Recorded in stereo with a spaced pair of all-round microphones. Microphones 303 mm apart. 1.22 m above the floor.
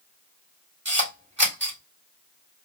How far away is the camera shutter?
About 2.5 m.